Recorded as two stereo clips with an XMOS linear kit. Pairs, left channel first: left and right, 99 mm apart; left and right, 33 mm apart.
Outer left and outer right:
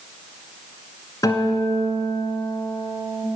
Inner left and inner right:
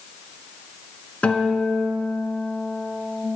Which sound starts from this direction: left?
A guitar, at 1.2 s.